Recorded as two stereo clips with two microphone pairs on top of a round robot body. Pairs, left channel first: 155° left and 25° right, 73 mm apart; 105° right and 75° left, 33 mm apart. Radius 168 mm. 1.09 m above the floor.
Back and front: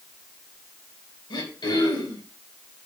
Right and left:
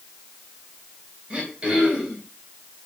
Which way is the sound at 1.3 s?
130° left.